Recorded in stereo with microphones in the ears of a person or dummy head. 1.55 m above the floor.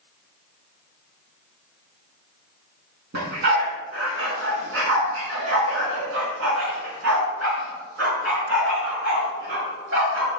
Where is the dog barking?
60° right (ahead or behind), 5 m; by 10.3 s 70° right (ahead or behind), 7.5 m.